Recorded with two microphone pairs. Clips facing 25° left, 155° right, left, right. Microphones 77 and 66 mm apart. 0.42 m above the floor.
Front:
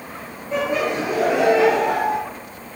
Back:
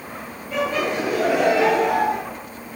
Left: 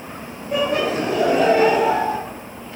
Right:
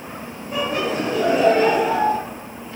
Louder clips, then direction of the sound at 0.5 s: Front 1 dB, left 3 dB; 85° left.